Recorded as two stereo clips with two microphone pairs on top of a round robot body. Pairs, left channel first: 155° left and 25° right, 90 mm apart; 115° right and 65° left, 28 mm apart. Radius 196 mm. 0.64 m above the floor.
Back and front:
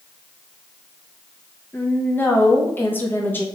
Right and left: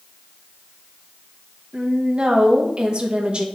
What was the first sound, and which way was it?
A woman speaking, 105° left.